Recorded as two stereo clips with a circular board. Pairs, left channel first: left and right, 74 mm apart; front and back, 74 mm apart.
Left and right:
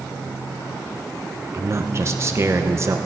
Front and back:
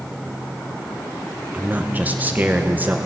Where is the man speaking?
120° right, 0.9 m.